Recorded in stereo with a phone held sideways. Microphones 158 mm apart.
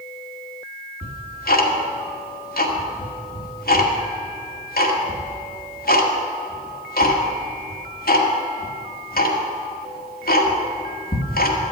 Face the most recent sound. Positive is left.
turn(degrees=70)  # may be behind; listen again after turning